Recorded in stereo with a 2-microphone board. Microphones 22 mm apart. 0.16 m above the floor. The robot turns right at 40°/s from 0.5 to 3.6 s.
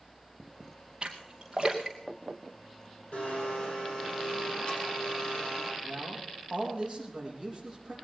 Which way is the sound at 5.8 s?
10° right (ahead or behind).